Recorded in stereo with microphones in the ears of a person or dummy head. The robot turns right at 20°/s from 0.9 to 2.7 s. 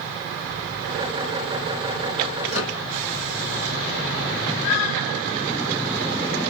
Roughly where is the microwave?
Right.